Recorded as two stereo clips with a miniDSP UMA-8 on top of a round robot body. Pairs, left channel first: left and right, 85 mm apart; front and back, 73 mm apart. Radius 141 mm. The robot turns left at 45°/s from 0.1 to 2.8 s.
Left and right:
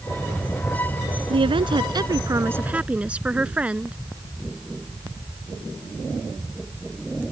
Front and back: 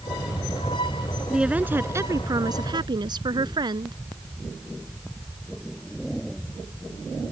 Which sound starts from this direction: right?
A woman speaking, at 1.3 s.